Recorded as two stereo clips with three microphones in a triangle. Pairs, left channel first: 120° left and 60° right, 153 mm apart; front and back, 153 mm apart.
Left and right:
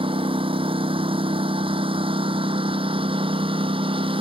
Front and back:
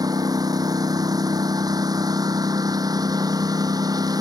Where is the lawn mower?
115° right.